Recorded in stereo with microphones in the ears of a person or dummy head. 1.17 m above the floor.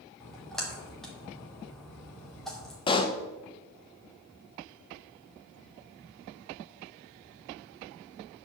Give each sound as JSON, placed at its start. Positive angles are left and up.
{"t": 0.2, "sound": "a splash", "side_deg": 5, "distance_m": 2.5}
{"t": 2.9, "sound": "a pop", "side_deg": 25, "distance_m": 0.9}